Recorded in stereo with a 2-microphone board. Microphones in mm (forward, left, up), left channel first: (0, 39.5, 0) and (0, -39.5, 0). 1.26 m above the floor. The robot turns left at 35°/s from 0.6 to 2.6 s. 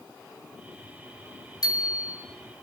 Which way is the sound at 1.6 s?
60° left (ahead or behind).